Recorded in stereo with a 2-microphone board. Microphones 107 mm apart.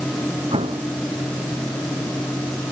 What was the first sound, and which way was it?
An explosion, 65° right (ahead or behind).